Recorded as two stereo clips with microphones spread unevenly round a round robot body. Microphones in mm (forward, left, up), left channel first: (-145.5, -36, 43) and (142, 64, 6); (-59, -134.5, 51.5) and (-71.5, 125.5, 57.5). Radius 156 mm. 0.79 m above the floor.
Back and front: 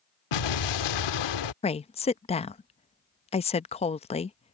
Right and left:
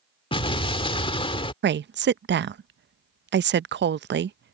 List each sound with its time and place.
0.3 s an explosion: 160° right
1.6 s a woman speaking: 130° left